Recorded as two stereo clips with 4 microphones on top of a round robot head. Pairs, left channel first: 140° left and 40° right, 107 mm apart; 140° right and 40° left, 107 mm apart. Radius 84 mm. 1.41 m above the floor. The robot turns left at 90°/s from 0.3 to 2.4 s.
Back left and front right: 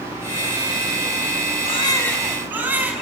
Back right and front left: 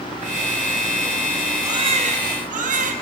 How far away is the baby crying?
About 6.5 m.